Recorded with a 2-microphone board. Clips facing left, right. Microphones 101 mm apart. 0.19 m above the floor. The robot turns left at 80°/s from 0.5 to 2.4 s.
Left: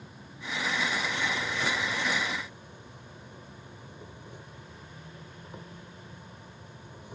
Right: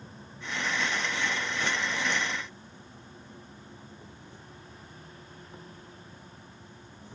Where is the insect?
165° left, 1.9 m; by 7.2 s 15° left, 1.9 m.